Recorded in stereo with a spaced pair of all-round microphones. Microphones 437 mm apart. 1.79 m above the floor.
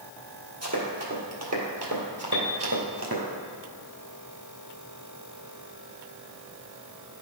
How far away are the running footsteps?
About 2.5 m.